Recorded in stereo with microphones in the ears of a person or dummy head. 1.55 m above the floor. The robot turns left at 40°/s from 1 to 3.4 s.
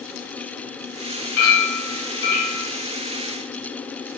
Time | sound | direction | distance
1.4 | a clink | 65° left | 0.9 m